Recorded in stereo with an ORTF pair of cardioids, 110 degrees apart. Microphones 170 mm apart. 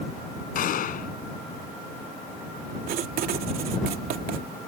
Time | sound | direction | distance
0.6 | a gunshot | 55° left | ?
2.9 | writing | 60° right | ?